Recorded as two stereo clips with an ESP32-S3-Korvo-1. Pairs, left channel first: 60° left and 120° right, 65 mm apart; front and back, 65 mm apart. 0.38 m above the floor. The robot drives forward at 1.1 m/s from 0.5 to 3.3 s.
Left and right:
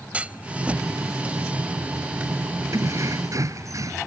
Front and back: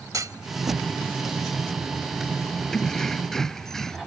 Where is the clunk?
175° left.